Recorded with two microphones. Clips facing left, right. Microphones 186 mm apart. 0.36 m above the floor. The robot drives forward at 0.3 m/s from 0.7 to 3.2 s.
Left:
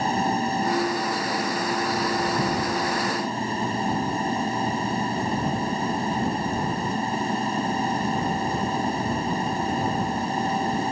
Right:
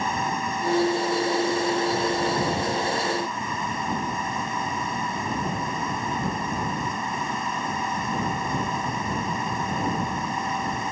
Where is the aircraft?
35° left (ahead or behind).